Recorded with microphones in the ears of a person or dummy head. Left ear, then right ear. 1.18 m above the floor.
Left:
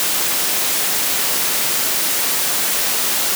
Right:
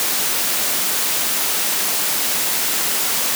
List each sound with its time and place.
Only background noise.